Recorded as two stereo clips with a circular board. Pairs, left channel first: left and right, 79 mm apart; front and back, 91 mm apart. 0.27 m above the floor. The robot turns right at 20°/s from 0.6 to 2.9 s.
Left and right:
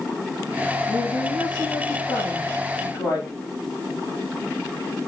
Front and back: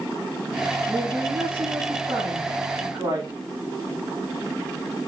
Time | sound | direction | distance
0.9 | a woman speaking | 90° left | 6 m